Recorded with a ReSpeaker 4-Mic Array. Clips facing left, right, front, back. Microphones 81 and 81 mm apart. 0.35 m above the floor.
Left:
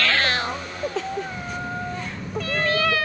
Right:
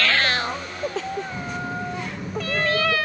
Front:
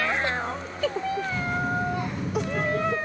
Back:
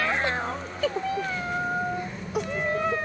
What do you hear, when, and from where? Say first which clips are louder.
1.3 s a child speaking: right 1 dB, front 1 dB; 25° right, 1.7 m; by 3.0 s straight ahead, 3 m